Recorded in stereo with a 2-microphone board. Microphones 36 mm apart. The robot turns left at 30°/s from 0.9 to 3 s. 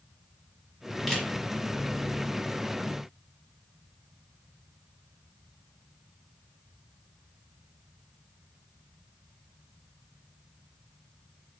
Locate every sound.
1.1 s a camera shutter: centre (ahead or behind), 1.0 m; by 1.3 s 5° right (ahead or behind), 1.0 m